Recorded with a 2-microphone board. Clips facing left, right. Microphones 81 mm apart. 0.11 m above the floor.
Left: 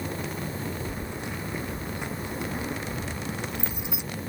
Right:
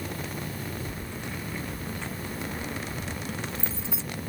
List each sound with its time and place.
0.9 s keys jangling: 15° left (ahead or behind)